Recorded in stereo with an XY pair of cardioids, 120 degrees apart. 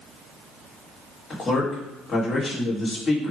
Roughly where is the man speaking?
Ahead left.